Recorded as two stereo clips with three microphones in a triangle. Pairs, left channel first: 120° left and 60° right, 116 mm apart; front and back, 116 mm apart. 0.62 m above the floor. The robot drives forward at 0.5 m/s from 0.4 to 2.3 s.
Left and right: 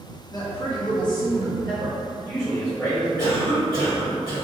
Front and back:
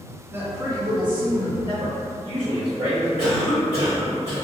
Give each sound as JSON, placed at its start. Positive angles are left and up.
{"t": 0.3, "sound": "a woman speaking", "azimuth_deg": 130, "distance_m": 0.6}
{"t": 1.7, "sound": "a man speaking", "azimuth_deg": 170, "distance_m": 1.8}
{"t": 3.2, "sound": "a cough", "azimuth_deg": 175, "distance_m": 1.8}